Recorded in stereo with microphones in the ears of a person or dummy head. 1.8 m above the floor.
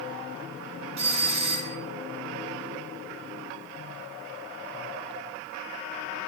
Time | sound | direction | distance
1.0 | a doorbell | 30° right (ahead or behind) | 1.4 m